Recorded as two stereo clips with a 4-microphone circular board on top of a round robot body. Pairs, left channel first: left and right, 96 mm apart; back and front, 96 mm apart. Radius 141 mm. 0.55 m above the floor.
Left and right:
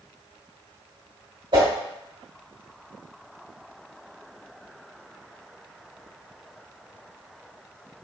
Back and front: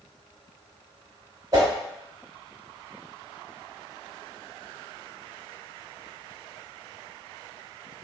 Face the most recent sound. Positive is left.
turn(degrees=-55)